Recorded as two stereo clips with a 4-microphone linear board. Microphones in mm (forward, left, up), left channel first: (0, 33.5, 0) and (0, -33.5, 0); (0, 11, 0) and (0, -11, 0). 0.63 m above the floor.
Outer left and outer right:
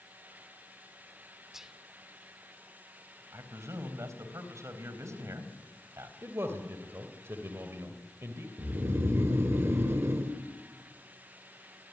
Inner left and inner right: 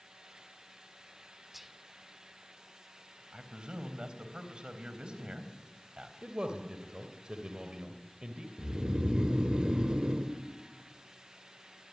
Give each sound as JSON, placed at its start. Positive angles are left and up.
{"t": 1.5, "sound": "whispering", "side_deg": -5, "distance_m": 1.5}
{"t": 3.3, "sound": "a man speaking", "side_deg": -50, "distance_m": 4.0}
{"t": 6.2, "sound": "a man speaking", "side_deg": -40, "distance_m": 2.0}
{"t": 8.6, "sound": "snoring", "side_deg": -45, "distance_m": 1.7}